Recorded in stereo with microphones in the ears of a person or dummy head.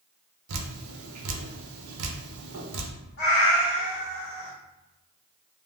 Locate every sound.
0.5 s dripping: 80° right, 0.6 m
3.2 s a cat meowing: 45° left (ahead or behind), 0.9 m